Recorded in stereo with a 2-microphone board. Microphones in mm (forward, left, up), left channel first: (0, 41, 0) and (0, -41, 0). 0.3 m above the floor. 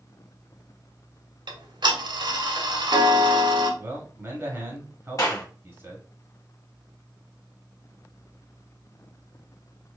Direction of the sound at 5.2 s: 40° left (ahead or behind).